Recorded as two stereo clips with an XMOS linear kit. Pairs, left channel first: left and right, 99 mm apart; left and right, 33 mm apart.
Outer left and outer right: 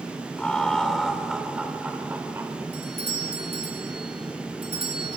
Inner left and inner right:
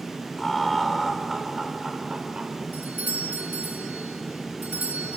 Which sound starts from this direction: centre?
Laughter, at 0.4 s.